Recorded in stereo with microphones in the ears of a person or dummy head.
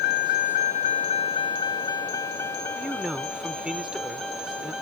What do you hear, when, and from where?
0.0 s a vehicle: 60° left (ahead or behind); by 4.8 s centre (ahead or behind)
2.8 s a man speaking: centre (ahead or behind)